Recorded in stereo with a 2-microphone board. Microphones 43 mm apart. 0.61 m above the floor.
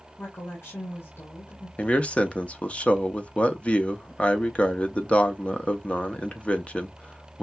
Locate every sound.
0.2 s a woman speaking: 70° left (ahead or behind), 2.0 m
1.8 s a man speaking: 25° left (ahead or behind), 0.6 m